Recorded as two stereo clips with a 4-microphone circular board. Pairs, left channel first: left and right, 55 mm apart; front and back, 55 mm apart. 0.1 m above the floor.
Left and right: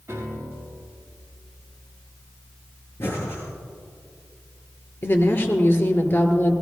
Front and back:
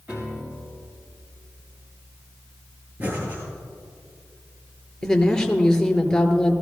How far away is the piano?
About 3.5 m.